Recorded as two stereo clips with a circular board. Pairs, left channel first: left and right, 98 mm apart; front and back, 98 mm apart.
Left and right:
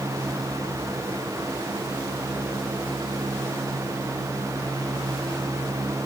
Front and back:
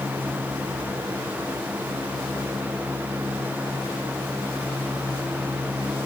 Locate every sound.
Only background noise.